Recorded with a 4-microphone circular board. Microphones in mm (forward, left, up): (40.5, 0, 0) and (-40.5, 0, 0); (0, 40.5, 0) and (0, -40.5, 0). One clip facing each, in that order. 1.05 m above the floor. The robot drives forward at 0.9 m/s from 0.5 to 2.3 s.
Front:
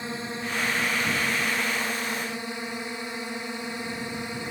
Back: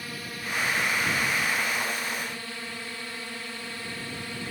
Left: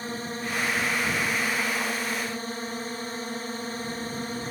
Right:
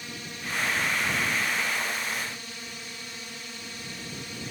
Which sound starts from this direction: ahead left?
A drone, at 0.0 s.